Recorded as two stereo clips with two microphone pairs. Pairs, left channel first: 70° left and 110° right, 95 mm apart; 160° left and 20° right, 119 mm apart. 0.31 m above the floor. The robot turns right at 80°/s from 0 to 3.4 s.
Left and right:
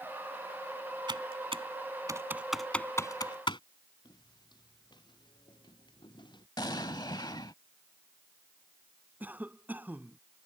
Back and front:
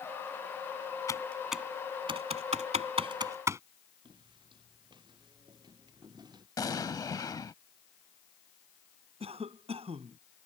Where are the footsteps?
25° left; by 6.5 s 35° left.